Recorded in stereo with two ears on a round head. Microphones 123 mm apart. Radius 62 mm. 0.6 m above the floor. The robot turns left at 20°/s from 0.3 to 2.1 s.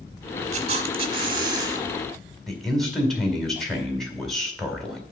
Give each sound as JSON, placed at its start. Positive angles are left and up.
{"t": 0.5, "sound": "a camera shutter", "side_deg": -50, "distance_m": 0.8}
{"t": 2.5, "sound": "a man speaking", "side_deg": 5, "distance_m": 2.0}